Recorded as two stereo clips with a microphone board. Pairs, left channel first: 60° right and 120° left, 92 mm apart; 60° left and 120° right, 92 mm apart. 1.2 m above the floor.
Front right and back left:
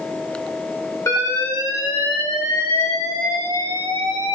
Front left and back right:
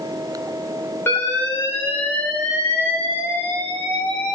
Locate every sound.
1.1 s an alarm: 5° right, 3 m